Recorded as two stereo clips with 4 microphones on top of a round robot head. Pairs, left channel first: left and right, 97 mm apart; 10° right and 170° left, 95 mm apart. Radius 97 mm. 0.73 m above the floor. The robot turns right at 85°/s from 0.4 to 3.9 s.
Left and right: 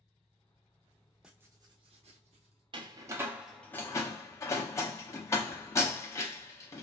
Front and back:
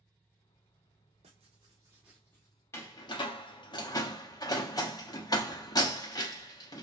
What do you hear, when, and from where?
1.2 s writing: 175° right, 0.7 m; by 2.6 s 55° right, 0.7 m
2.7 s a door slam: 70° right, 0.7 m; by 6.8 s 30° left, 0.7 m